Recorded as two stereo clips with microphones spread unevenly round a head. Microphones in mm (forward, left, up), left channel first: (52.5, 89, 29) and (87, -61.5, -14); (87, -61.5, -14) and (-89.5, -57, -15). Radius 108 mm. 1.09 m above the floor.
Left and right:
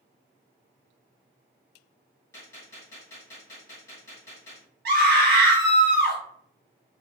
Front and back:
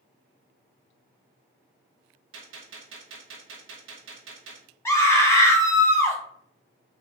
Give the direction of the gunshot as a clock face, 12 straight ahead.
6 o'clock.